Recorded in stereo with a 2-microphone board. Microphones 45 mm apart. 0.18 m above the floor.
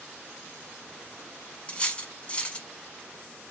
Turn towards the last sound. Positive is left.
turn(degrees=25)  # may be behind; listen again after turning